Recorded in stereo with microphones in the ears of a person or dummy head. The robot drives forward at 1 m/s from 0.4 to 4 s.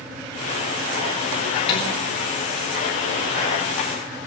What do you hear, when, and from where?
1.7 s dishes clattering: 20° left (ahead or behind), 4 m; by 1.9 s 25° left (ahead or behind), 4 m